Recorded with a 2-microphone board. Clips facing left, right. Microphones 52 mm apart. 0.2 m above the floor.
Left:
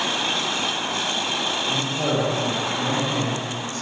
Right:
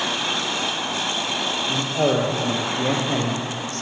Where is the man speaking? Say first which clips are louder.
Right 5 dB; 40° right (ahead or behind), 5 m; by 3.8 s 65° right (ahead or behind), 5 m.